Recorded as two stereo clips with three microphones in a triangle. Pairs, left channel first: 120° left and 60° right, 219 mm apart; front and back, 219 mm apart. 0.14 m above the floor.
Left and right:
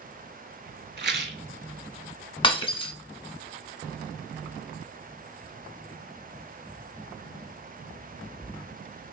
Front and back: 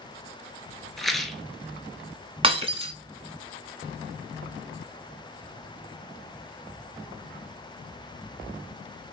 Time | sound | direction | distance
1.0 | a rattle | 90° right | 0.5 m
2.4 | breaking glass | 155° left | 0.7 m